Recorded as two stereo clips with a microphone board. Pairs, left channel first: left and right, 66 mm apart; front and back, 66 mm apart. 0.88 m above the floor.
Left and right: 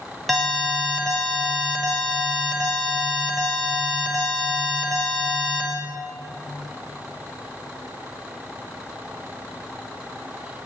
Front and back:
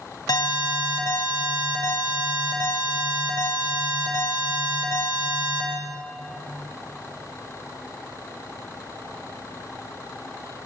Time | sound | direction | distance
0.3 | an alarm | straight ahead | 6 m